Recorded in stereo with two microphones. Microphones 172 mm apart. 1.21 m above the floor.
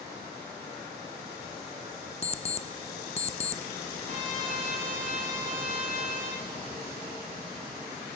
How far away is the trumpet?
About 7 m.